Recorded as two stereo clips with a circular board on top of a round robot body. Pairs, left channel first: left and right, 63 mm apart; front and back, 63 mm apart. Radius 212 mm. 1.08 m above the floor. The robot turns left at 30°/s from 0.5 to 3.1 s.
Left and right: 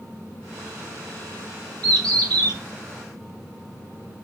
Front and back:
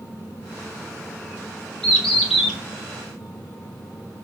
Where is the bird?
80° right, 2 m; by 2.6 s 105° right, 2 m.